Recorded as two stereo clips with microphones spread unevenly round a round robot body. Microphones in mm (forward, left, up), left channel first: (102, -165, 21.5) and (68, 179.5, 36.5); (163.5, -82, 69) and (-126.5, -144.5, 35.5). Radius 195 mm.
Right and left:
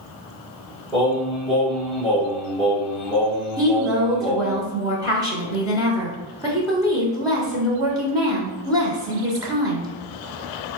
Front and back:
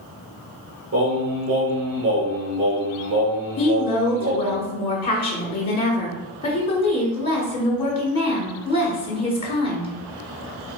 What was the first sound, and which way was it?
Singing, 175° right.